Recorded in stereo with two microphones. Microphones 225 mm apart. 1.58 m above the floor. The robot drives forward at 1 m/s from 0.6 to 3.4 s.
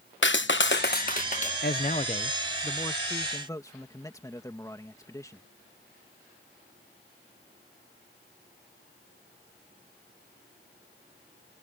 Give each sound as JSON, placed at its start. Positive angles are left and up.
{"t": 0.2, "sound": "a clap", "side_deg": 55}
{"t": 1.6, "sound": "a man speaking", "side_deg": 50}